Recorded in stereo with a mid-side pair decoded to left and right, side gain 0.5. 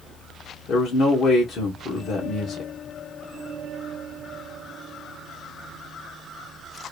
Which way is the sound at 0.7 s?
55° left.